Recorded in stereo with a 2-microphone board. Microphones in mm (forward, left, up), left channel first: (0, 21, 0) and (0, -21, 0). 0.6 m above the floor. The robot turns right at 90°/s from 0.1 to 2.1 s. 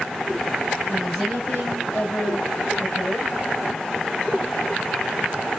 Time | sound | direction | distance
0.9 | a woman speaking | 15° right | 3 m